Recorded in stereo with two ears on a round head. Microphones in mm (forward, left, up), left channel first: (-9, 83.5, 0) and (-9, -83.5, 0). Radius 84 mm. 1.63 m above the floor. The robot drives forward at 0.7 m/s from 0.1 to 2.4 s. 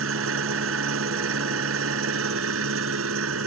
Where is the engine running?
75° right (ahead or behind); by 3.5 s 80° right.